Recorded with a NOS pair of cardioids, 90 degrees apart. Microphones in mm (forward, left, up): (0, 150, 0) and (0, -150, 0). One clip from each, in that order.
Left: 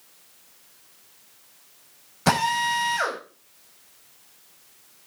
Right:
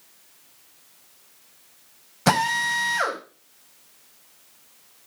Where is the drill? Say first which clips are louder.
Right 1 dB; 10° right, 5.5 m.